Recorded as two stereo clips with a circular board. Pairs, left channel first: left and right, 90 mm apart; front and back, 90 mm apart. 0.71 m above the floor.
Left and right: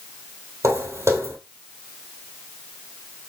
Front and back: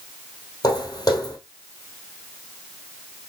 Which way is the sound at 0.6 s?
40° right.